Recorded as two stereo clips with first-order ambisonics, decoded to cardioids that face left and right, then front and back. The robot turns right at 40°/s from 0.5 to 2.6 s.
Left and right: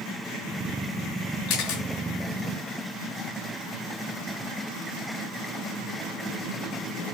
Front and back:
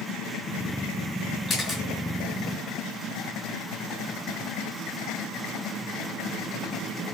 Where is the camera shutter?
60° left, 4 m; by 1.8 s 75° left, 4 m.